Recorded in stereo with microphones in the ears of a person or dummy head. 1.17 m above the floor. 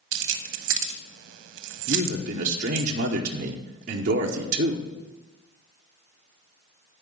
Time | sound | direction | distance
0.1 | keys jangling | 80° right | 0.9 m
1.9 | a man speaking | 45° right (ahead or behind) | 0.8 m